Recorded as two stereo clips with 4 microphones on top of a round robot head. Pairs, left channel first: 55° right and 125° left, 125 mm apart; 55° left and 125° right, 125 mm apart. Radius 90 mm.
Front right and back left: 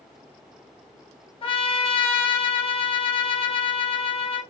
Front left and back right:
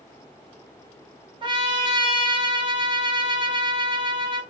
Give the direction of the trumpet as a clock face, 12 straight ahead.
3 o'clock.